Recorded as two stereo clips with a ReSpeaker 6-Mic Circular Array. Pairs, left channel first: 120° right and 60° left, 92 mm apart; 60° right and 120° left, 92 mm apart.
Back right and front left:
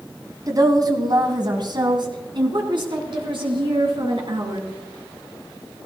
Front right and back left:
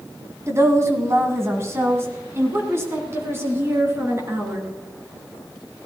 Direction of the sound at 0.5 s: 80° left.